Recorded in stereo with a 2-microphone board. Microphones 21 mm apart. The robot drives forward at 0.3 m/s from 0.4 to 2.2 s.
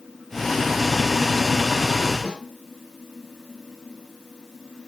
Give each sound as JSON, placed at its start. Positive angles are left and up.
{"t": 2.2, "sound": "a snare drum", "side_deg": -40, "distance_m": 2.0}